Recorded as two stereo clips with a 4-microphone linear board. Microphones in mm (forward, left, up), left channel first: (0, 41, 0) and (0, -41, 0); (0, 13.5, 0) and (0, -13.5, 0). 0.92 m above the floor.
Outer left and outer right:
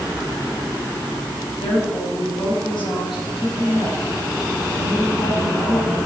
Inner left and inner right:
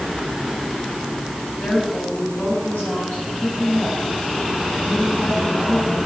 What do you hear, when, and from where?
1.6 s a woman speaking: 85° left, 6.5 m